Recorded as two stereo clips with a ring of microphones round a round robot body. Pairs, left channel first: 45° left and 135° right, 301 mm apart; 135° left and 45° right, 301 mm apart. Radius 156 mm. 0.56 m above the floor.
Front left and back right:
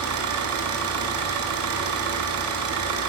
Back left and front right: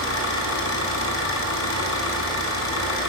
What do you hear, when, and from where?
0.0 s an engine running: straight behind, 4 m